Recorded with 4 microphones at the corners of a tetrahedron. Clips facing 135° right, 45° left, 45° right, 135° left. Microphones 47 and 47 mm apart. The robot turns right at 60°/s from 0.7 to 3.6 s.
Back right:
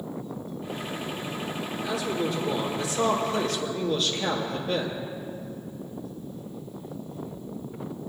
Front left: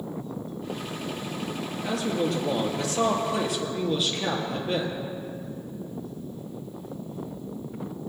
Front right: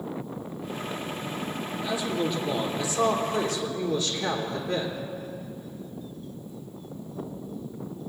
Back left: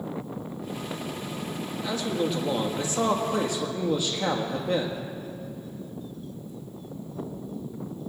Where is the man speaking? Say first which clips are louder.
Front left 2 dB, even; 20° left, 3 m; by 5.0 s 125° left, 3 m.